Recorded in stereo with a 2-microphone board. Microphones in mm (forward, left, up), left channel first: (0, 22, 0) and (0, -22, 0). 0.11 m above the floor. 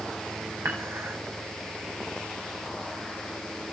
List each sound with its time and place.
0.7 s dishes clattering: 80° right, 6 m